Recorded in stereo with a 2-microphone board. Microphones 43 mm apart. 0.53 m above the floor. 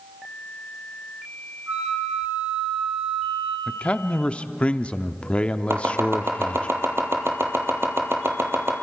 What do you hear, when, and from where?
1.7 s a flute: 75° right (ahead or behind), 8 m
3.7 s a man speaking: 25° left (ahead or behind), 0.6 m
5.7 s chopping: 65° right (ahead or behind), 2 m